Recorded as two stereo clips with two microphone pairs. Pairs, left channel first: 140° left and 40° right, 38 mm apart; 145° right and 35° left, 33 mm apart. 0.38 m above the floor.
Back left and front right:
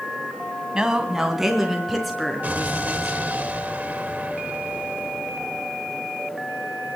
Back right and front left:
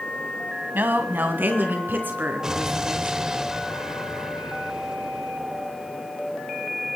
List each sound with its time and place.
0.7 s a woman speaking: 30° left, 2 m; by 3.3 s 60° left, 5.5 m
2.4 s an explosion: 25° right, 1.0 m